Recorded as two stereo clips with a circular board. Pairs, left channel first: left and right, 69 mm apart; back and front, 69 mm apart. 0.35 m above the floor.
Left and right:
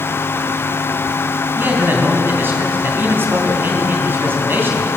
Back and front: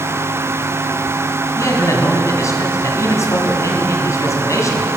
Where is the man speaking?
145° right, 2.5 m.